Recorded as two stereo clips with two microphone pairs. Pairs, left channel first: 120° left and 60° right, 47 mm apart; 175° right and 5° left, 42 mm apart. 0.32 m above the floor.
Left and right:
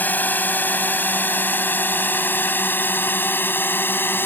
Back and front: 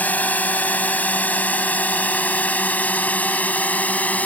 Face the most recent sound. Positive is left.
turn(degrees=140)